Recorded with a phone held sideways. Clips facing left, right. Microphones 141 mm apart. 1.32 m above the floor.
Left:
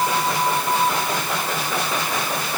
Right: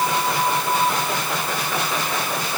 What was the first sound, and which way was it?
Only background noise.